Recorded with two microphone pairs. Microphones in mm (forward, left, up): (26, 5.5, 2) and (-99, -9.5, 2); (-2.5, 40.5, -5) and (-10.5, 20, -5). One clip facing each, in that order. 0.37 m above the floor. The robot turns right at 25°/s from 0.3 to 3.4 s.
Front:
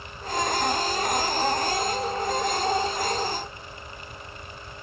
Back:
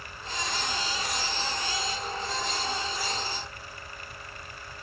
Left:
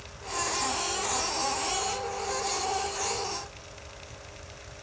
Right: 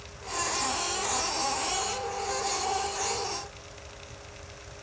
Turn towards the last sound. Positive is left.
No sound to turn to.